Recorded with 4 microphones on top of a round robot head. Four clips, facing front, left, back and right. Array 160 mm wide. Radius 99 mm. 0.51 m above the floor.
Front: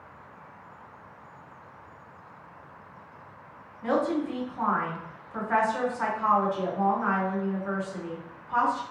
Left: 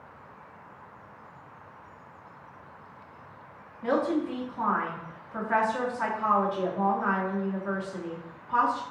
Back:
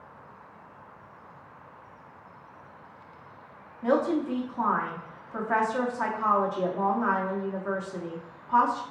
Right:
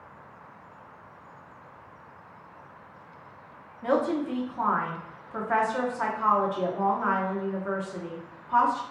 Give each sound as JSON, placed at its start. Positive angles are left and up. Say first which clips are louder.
{"t": 3.8, "sound": "a woman speaking", "louder": "right 1 dB, back 1 dB", "azimuth_deg": -135, "distance_m": 0.9}